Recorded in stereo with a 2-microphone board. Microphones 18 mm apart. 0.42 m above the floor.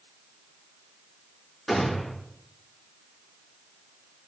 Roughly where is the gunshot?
Centre.